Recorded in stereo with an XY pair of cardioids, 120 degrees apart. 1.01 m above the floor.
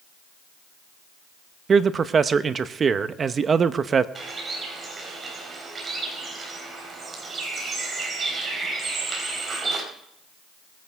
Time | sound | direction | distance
1.7 | a man speaking | 35° right | 0.8 m
4.2 | a bird | 30° right | 4 m